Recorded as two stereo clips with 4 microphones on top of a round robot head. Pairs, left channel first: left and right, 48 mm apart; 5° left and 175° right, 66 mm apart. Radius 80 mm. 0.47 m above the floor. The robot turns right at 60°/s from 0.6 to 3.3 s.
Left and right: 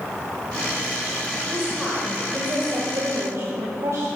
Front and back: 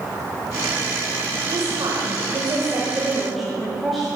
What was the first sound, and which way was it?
A woman speaking, 165° left.